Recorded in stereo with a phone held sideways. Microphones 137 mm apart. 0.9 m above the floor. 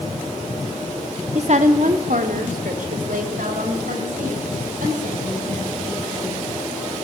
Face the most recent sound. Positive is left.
turn(degrees=-75)  # may be behind; listen again after turning